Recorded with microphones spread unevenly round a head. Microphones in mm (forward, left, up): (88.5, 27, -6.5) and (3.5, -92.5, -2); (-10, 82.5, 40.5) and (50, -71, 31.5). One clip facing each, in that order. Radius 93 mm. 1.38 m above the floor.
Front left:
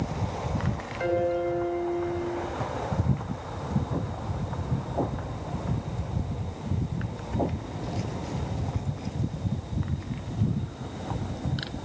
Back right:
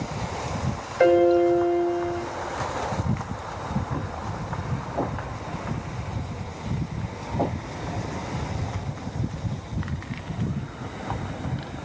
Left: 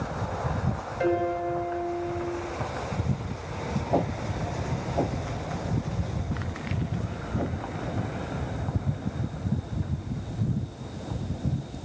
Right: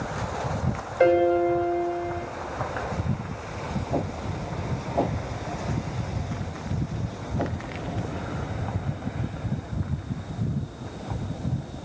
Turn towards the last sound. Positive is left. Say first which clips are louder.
# back right 9 dB, right 7 dB
turn(degrees=-110)